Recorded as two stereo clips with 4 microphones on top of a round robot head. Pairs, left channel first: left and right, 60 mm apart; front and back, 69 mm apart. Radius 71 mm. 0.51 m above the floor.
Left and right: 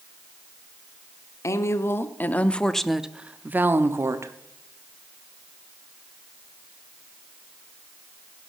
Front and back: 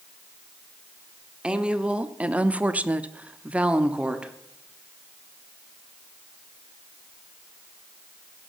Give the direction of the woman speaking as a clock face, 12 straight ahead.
8 o'clock.